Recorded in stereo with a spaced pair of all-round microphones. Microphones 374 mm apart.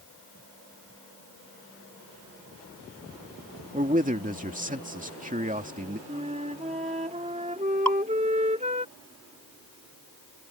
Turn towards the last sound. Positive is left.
turn(degrees=-55)  # may be behind; listen again after turning